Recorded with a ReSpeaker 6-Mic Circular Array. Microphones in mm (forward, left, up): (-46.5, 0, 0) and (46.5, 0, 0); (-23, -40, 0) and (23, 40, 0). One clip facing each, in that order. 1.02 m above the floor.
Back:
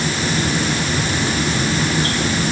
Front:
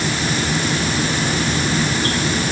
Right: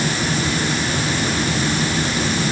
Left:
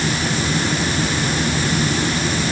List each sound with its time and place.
Only background noise.